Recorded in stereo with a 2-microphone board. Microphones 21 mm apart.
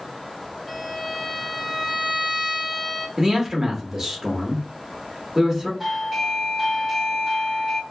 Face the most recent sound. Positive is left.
turn(degrees=-5)  # may be behind; listen again after turning